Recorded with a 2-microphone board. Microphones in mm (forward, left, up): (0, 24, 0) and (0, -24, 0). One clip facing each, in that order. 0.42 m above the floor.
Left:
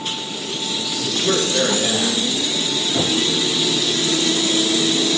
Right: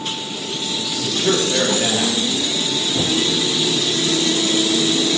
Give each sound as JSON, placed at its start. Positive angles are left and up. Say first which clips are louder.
{"t": 1.0, "sound": "a man speaking", "louder": "right 1 dB", "side_deg": -60, "distance_m": 9.5}
{"t": 2.9, "sound": "knocking", "louder": "even", "side_deg": 35, "distance_m": 5.0}